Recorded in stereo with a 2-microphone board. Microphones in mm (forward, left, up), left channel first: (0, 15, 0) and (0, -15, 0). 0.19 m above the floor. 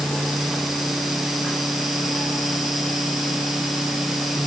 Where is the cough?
No cough in this recording.